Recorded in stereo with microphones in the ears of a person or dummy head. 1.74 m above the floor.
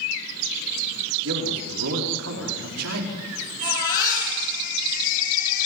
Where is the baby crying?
40° left (ahead or behind), 10 m.